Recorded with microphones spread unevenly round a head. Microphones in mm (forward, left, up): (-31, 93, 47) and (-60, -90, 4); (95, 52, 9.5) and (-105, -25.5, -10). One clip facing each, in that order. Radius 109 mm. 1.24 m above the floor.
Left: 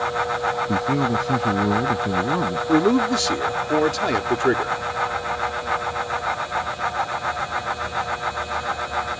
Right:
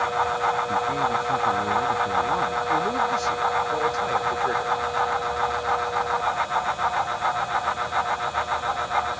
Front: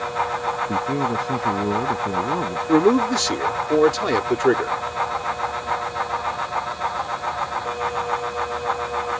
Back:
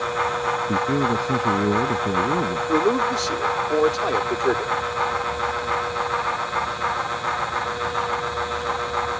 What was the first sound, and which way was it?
A man speaking, 120° left.